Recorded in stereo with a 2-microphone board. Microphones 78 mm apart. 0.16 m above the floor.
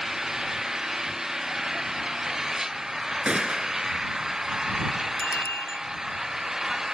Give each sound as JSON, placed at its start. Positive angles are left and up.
{"t": 0.0, "sound": "an engine running", "side_deg": -5}
{"t": 3.2, "sound": "a gunshot", "side_deg": -10}
{"t": 5.2, "sound": "a bicycle bell", "side_deg": 35}